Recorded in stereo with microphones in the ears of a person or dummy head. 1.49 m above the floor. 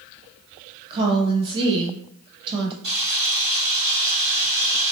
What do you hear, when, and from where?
0.9 s a woman speaking: 30° right (ahead or behind), 0.6 m
2.8 s a camera shutter: 35° right (ahead or behind), 1.7 m